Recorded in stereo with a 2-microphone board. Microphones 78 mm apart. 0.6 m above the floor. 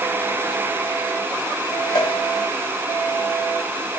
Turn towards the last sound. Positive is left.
turn(degrees=80)